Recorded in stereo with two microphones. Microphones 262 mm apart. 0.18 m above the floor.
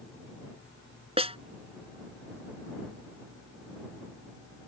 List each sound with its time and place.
1.2 s a snare drum: 25° right (ahead or behind)